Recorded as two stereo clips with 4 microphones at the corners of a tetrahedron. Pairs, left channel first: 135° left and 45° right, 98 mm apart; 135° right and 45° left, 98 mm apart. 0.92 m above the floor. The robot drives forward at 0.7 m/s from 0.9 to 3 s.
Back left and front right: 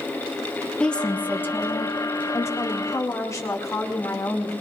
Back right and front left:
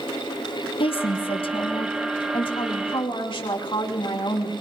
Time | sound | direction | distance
0.8 | a woman speaking | 145° right | 0.9 m